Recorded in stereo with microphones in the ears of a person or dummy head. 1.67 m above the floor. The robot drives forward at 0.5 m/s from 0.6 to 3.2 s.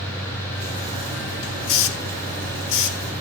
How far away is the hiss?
About 1.4 m.